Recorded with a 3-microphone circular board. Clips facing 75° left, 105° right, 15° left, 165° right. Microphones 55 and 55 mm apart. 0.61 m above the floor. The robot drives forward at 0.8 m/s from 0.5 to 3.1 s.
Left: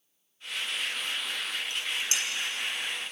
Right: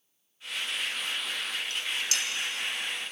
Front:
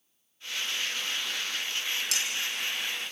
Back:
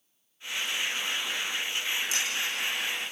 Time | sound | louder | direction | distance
1.7 | dishes clattering | even, back 2 dB | 10° left | 4 m